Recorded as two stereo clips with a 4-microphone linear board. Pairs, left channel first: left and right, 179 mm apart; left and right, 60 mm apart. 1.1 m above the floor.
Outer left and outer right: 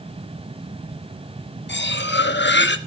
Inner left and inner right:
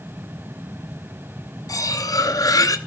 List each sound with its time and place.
1.7 s cutlery clinking: 70° left (ahead or behind), 0.9 m